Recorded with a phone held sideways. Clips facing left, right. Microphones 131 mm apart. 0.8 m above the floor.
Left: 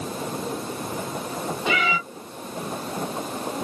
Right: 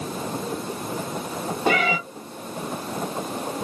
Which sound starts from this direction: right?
A cat meowing, at 1.7 s.